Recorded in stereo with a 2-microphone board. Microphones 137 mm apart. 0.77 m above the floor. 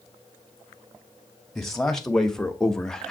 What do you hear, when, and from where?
1.6 s a man speaking: 5° left (ahead or behind), 2 m